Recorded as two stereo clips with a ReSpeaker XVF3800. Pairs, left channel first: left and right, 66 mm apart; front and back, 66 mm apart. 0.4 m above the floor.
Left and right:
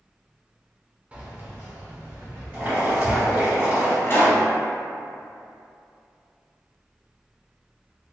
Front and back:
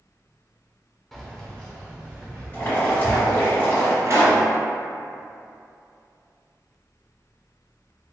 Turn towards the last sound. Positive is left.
turn(degrees=140)